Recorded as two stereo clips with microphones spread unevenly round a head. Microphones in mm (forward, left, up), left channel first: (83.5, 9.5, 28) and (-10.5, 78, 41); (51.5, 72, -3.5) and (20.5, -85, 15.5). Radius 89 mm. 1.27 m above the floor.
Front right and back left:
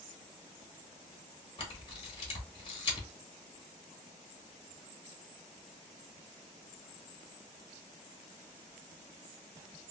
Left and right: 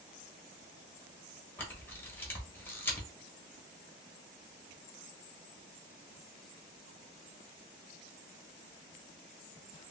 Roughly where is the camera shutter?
Ahead.